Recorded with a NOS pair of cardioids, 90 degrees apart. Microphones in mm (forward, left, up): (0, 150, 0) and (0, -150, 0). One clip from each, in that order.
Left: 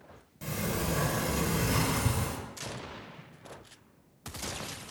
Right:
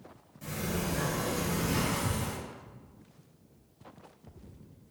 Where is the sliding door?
40° left, 1.0 m.